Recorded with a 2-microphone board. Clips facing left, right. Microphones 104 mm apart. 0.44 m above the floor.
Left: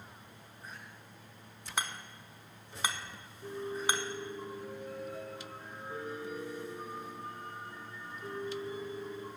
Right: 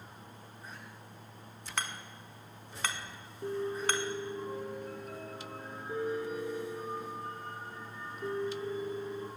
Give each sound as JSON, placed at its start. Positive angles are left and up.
{"t": 1.8, "sound": "hammering", "side_deg": 15, "distance_m": 0.9}
{"t": 3.4, "sound": "a piano", "side_deg": -60, "distance_m": 3.5}